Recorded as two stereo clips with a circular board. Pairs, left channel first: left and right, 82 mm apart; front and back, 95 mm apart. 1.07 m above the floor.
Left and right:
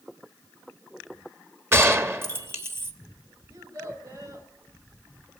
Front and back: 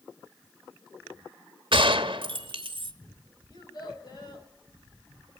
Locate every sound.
1.7 s a gunshot: 150° right, 1.2 m
3.5 s a child speaking: 40° right, 4 m